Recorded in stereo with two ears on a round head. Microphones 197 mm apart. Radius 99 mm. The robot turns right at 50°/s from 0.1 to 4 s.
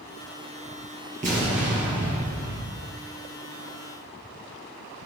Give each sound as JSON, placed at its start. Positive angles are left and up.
{"t": 1.2, "sound": "an explosion", "azimuth_deg": -145, "distance_m": 6.0}